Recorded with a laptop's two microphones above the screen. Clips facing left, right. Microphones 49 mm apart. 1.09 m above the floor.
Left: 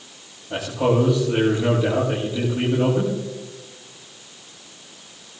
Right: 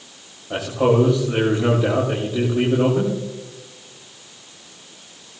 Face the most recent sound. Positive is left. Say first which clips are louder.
# right 3 dB
turn(degrees=-35)  # may be behind; listen again after turning